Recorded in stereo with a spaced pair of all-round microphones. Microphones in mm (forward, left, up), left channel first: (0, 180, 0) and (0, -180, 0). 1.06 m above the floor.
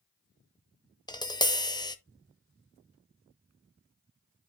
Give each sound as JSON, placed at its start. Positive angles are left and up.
{"t": 1.1, "sound": "tapping", "side_deg": 10, "distance_m": 0.7}